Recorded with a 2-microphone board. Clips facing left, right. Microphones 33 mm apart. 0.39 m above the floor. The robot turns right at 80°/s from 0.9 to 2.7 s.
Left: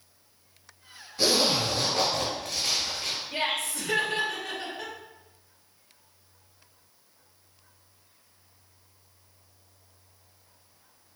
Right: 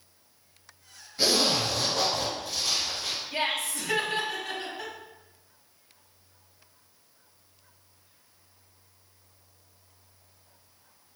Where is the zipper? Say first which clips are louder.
Left 1 dB; 10° right, 2.0 m; by 3.2 s 110° left, 2.0 m.